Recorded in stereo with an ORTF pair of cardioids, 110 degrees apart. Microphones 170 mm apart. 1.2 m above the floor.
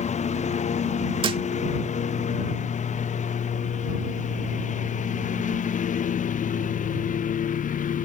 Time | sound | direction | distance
0.0 | a lawn mower | 40° left | ?
1.2 | a thud | 30° right | ?